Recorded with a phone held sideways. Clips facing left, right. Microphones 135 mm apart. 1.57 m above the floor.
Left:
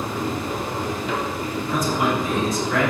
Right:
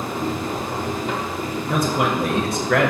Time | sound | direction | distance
0.0 | a machine running | 45° right (ahead or behind) | 0.8 m
1.7 | a man speaking | 65° right (ahead or behind) | 0.7 m